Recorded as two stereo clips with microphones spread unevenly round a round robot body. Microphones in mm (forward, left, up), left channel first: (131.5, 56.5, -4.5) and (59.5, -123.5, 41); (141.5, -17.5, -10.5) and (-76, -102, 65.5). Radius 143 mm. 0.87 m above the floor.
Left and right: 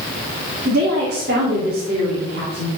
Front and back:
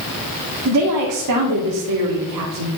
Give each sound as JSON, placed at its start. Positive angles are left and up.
{"t": 0.7, "sound": "a woman speaking", "azimuth_deg": -170, "distance_m": 2.0}